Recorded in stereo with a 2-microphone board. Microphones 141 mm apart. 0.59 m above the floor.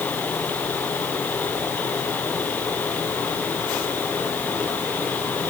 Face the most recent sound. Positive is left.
No sound to turn to.